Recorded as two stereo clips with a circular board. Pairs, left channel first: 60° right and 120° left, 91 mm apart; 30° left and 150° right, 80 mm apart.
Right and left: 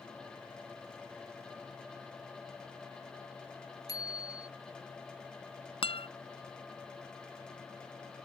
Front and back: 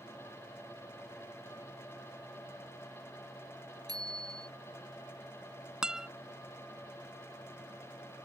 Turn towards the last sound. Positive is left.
turn(degrees=-70)